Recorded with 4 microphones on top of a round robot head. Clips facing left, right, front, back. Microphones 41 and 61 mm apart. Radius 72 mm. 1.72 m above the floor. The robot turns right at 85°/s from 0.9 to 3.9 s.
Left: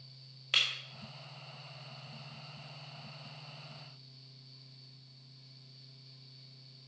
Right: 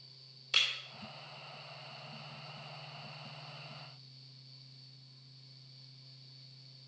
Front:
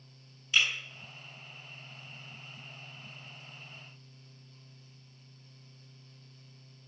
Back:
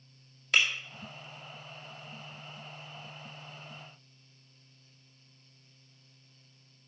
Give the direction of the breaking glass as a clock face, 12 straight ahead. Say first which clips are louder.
Left 1 dB, back 1 dB; 7 o'clock.